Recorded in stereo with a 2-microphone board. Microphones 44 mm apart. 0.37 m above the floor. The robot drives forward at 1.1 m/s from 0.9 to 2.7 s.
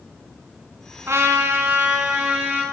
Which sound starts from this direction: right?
A trumpet, at 1.1 s.